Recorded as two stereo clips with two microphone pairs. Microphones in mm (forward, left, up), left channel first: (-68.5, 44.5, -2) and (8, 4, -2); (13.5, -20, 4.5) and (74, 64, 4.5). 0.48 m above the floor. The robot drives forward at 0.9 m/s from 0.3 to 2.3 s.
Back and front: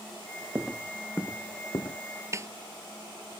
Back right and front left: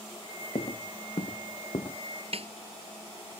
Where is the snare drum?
30° left.